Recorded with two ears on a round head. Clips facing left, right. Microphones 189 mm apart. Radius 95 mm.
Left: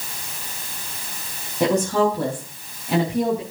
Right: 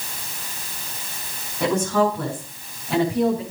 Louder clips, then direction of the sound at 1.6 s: Left 1 dB; 20° left (ahead or behind).